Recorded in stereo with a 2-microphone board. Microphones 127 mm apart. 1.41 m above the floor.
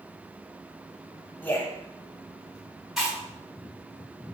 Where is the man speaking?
15° left (ahead or behind), 0.7 m.